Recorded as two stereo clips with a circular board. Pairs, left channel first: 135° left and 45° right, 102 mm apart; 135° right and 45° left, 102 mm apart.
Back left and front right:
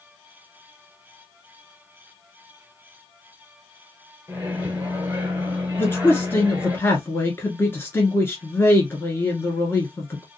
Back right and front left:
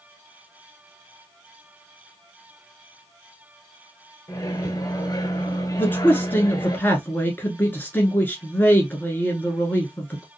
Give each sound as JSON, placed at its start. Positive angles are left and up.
{"t": 4.3, "sound": "a microwave", "azimuth_deg": -110, "distance_m": 1.6}
{"t": 5.8, "sound": "a man speaking", "azimuth_deg": 175, "distance_m": 1.3}